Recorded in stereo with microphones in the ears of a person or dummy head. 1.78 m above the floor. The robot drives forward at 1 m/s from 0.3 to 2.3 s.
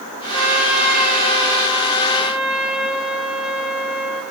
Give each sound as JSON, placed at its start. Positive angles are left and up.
{"t": 0.3, "sound": "a trumpet", "side_deg": 0, "distance_m": 3.5}